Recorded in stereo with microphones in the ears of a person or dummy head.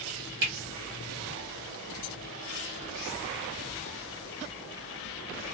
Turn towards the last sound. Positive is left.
turn(degrees=-60)  # may be behind; listen again after turning